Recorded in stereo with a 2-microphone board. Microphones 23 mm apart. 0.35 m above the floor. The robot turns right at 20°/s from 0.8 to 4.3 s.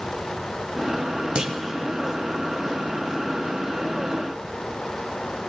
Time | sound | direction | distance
1.4 | a clunk | 45° right (ahead or behind) | 0.6 m